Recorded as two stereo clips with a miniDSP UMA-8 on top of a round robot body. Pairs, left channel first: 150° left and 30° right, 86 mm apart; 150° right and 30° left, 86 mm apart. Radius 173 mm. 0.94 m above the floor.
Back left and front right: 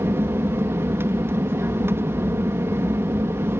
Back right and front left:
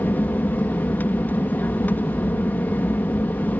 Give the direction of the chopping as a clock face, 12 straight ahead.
I don't hear chopping.